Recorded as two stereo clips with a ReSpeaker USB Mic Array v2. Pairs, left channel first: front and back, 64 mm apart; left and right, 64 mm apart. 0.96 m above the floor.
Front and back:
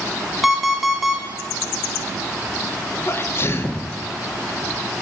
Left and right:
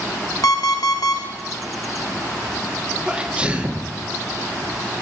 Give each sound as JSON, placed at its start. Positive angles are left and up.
{"t": 0.4, "sound": "an alarm clock", "azimuth_deg": 90, "distance_m": 0.8}
{"t": 3.1, "sound": "a sneeze", "azimuth_deg": -25, "distance_m": 0.6}